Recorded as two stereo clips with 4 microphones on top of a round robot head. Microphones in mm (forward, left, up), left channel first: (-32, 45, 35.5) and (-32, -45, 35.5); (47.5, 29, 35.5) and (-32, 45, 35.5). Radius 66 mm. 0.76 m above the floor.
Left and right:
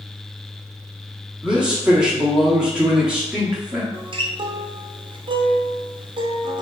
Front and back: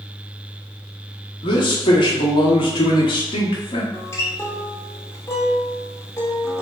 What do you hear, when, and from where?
1.4 s a man speaking: 10° right, 1.2 m
3.9 s a guitar: 70° right, 0.6 m